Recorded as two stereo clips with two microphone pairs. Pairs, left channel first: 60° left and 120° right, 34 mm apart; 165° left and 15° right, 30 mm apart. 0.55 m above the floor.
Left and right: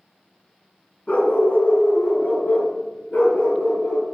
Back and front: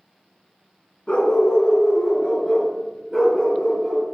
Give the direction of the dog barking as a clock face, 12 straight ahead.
9 o'clock.